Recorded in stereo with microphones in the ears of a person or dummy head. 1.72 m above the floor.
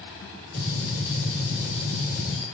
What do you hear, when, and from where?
0.5 s a gunshot: 40° left (ahead or behind), 1.7 m